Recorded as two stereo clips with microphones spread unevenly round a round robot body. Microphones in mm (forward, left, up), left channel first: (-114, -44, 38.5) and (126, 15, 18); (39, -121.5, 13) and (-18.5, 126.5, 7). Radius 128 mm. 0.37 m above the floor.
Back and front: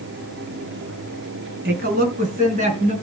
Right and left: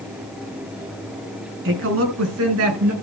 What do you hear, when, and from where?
1.6 s a woman speaking: 65° left, 4 m; by 2.9 s 80° left, 5 m